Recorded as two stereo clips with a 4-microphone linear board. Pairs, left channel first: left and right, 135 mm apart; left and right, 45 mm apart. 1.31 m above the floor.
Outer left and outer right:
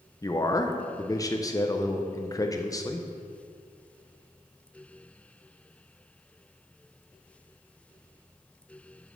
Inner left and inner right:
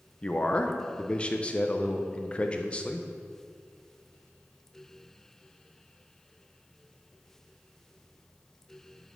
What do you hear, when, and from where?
0.2 s a man speaking: 25° left (ahead or behind), 0.7 m